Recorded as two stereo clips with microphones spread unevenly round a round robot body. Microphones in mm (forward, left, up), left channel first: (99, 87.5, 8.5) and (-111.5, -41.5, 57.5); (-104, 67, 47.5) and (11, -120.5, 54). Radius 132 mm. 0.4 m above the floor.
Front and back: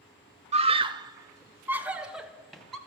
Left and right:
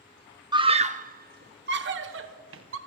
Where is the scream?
95° right, 0.8 m; by 2.8 s 50° right, 1.5 m.